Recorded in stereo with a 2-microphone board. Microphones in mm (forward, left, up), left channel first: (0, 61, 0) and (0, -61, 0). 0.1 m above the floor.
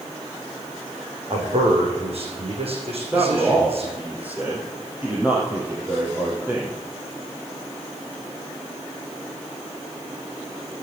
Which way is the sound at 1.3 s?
50° right (ahead or behind).